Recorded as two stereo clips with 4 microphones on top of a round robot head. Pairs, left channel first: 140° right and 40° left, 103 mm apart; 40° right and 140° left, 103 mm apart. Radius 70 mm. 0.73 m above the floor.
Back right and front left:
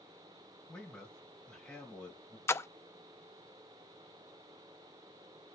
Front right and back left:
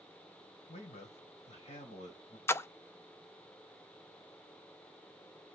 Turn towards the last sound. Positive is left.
turn(degrees=-90)